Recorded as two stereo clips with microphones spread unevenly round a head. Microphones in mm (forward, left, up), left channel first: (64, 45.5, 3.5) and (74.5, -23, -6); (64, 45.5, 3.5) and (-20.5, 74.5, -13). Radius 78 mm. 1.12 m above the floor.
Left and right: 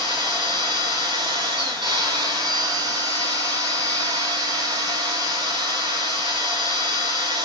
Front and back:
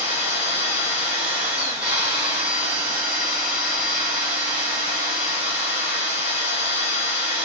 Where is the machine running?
120° right, 2.5 m.